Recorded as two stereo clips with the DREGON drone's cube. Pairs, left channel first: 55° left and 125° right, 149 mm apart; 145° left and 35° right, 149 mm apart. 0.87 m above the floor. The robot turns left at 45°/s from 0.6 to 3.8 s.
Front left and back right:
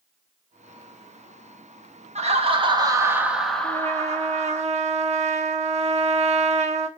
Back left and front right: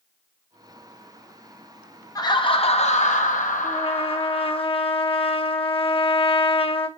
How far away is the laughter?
About 0.8 m.